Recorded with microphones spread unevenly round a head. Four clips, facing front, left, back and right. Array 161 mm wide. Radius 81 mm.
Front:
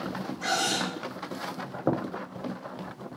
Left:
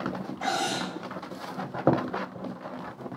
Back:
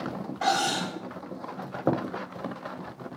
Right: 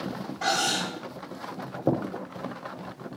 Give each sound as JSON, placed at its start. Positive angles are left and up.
{"t": 0.4, "sound": "cutlery clinking", "azimuth_deg": -165, "distance_m": 4.5}